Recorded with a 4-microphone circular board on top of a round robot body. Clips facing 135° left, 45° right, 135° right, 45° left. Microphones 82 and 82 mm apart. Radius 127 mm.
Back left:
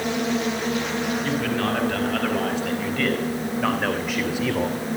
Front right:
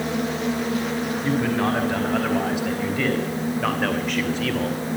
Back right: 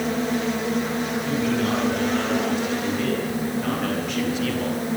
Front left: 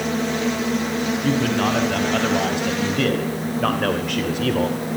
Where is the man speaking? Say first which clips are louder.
Front right 2 dB, front left 4 dB; 25° left, 5.5 m; by 4.8 s 70° left, 2.5 m.